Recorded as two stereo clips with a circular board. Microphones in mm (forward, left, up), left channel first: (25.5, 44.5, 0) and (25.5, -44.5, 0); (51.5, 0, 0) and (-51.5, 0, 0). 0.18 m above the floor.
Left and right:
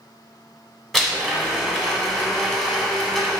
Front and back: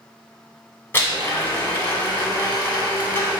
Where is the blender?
5° left, 0.8 m.